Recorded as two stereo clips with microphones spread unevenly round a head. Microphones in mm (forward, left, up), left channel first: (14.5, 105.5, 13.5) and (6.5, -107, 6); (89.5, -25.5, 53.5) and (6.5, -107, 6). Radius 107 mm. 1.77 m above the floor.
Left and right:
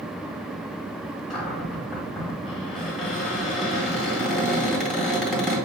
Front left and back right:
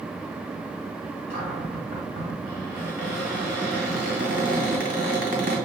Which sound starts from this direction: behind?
A cupboard door, at 1.3 s.